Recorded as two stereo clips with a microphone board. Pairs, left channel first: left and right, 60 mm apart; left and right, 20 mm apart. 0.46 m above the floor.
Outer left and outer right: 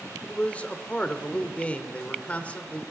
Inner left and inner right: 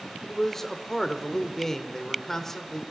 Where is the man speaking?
25° left (ahead or behind), 1.3 m.